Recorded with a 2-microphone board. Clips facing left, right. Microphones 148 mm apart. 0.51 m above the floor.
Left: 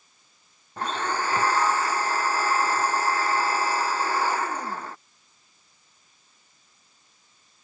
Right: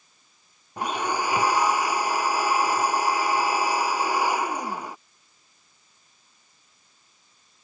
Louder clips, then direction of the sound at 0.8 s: Right 1 dB; 10° right (ahead or behind).